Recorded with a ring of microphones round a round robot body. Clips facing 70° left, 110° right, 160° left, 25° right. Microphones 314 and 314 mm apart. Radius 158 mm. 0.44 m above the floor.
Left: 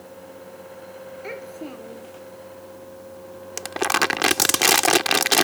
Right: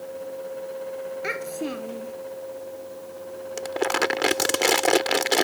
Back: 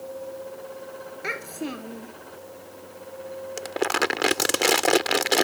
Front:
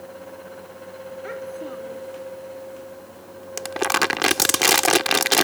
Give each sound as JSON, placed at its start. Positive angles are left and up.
{"t": 1.2, "sound": "a child speaking", "azimuth_deg": -165}
{"t": 3.6, "sound": "crumpling", "azimuth_deg": 25}